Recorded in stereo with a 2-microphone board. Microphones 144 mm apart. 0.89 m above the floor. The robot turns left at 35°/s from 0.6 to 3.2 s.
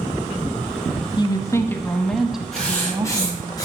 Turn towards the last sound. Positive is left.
turn(degrees=25)  # may be behind; listen again after turning